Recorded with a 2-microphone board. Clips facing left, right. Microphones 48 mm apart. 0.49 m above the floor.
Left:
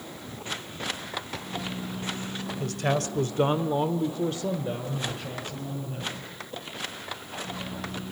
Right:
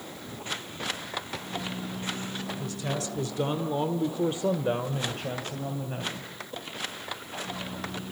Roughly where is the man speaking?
Left.